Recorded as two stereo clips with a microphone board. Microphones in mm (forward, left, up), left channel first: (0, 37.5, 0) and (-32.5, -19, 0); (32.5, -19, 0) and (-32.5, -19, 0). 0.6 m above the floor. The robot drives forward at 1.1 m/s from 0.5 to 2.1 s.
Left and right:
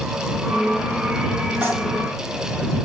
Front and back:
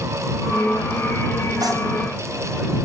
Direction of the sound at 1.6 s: 175° right.